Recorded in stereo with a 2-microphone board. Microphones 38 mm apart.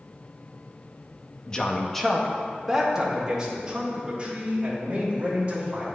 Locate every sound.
1.5 s a man speaking: 25° left (ahead or behind), 0.7 m; by 5.8 s 35° right (ahead or behind), 2.5 m